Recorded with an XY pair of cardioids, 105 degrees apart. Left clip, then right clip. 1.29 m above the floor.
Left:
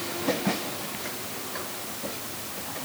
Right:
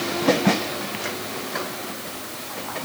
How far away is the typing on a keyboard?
No typing on a keyboard in this recording.